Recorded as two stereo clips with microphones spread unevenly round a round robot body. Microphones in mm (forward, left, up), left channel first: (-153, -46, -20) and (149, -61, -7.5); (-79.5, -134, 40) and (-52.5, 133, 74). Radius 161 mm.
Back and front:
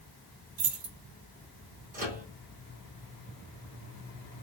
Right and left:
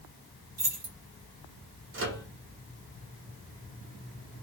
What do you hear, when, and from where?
0.6 s keys jangling: 30° left, 1.0 m
1.9 s a microwave: 55° left, 0.9 m